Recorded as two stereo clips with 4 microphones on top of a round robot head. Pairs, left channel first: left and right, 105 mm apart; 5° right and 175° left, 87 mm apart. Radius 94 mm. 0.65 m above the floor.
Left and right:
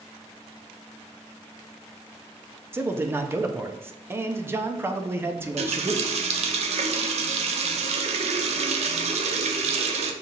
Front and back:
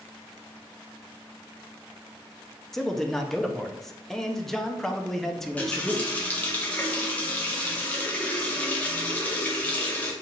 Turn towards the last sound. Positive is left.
turn(degrees=-80)